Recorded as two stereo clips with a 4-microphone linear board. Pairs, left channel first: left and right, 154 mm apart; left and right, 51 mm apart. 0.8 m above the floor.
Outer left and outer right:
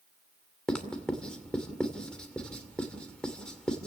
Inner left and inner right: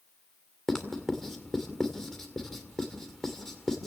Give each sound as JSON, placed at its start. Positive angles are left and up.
{"t": 0.7, "sound": "writing", "side_deg": 5, "distance_m": 2.5}